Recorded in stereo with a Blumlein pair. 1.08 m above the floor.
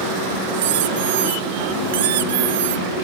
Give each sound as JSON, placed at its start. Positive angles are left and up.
{"t": 0.5, "sound": "a squeak", "azimuth_deg": -55}